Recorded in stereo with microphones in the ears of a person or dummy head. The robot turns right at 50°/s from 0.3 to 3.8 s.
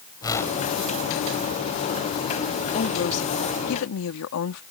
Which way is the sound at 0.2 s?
20° left (ahead or behind).